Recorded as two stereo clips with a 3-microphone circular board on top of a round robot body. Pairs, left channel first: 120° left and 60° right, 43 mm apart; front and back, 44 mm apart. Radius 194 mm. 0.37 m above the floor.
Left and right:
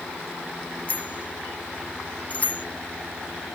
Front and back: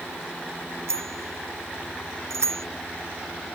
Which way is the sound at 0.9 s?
175° left.